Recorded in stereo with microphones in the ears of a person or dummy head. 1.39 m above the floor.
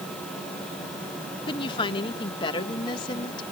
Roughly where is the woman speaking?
Left.